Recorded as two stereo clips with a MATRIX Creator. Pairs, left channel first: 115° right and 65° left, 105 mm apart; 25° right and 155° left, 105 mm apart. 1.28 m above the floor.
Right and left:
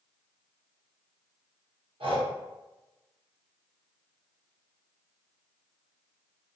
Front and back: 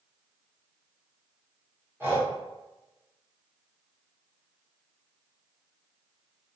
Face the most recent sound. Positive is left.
turn(degrees=90)